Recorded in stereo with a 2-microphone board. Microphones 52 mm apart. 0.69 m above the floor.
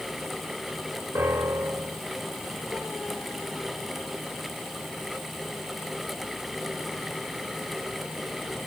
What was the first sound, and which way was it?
A piano, 50° right (ahead or behind).